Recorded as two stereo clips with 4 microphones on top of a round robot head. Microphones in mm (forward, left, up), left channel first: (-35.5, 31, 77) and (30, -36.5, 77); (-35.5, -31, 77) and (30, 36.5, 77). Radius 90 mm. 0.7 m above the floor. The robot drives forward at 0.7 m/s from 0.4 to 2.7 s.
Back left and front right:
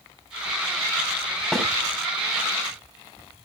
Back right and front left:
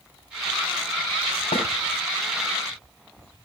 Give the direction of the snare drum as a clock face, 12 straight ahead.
5 o'clock.